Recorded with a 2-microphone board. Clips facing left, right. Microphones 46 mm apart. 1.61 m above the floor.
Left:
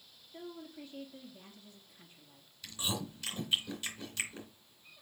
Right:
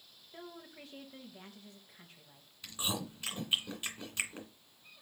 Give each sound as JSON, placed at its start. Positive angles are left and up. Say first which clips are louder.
{"t": 0.3, "sound": "a woman speaking", "louder": "left 3 dB", "side_deg": -65, "distance_m": 2.0}
{"t": 2.6, "sound": "chewing", "louder": "even", "side_deg": -25, "distance_m": 2.5}